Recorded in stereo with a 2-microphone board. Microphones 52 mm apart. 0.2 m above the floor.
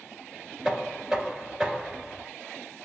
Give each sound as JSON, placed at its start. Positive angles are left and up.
{"t": 0.7, "sound": "knocking", "side_deg": -5, "distance_m": 2.5}